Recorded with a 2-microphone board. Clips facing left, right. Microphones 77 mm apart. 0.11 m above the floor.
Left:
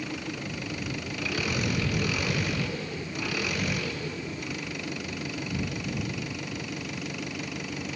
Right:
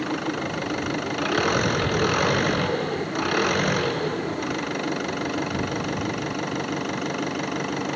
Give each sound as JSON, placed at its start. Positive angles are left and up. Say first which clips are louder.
{"t": 0.0, "sound": "an engine running", "louder": "right 9 dB", "side_deg": -55}